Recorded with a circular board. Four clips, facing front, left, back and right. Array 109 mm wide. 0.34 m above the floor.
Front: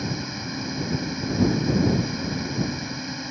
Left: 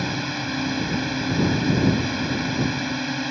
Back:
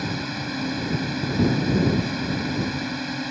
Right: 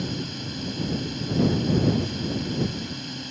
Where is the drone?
110° left.